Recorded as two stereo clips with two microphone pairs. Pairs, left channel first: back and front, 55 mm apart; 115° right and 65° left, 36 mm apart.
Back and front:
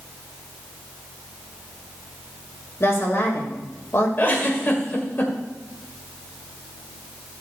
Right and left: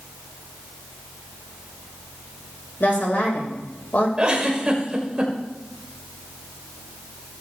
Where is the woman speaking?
145° right, 2.5 m.